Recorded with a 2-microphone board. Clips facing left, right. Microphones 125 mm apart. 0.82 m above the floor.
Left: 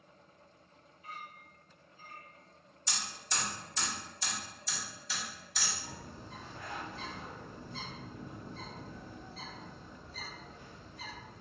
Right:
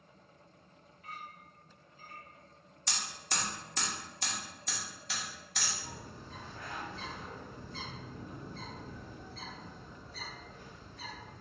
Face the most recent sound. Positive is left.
turn(degrees=15)  # may be behind; listen again after turning